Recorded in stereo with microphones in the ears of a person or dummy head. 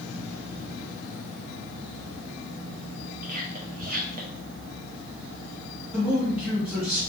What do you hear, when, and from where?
3.2 s whispering: 45° right (ahead or behind), 0.8 m
5.9 s a man speaking: 5° right (ahead or behind), 1.5 m